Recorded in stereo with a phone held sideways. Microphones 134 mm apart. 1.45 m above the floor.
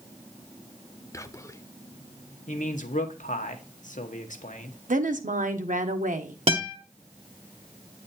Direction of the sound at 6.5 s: 45° right (ahead or behind).